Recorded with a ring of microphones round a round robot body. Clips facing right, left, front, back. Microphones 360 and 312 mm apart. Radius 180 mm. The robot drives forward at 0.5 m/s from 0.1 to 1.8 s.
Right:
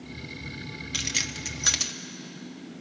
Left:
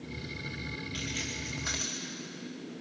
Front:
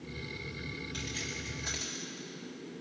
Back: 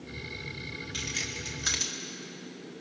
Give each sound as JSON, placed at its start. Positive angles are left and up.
{"t": 0.9, "sound": "keys jangling", "azimuth_deg": -95, "distance_m": 1.1}